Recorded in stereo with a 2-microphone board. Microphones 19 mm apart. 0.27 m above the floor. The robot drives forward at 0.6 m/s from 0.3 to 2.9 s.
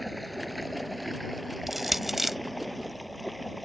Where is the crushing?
15° right (ahead or behind); by 2.4 s 10° right (ahead or behind).